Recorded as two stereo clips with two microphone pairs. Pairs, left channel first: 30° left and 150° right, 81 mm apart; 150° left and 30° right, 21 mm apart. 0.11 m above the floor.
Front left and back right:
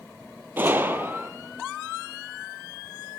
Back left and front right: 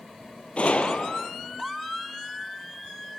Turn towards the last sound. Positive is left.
turn(degrees=150)